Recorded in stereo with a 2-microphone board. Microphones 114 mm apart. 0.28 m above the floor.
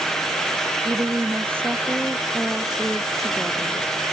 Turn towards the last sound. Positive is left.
turn(degrees=5)  # may be behind; listen again after turning